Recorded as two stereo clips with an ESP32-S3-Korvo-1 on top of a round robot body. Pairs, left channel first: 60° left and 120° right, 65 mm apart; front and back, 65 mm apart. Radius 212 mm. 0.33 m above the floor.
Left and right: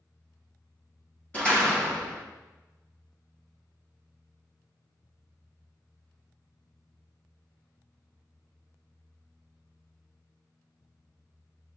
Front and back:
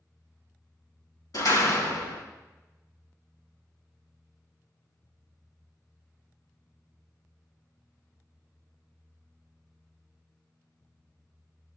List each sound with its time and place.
1.3 s a door slam: 10° right, 4.5 m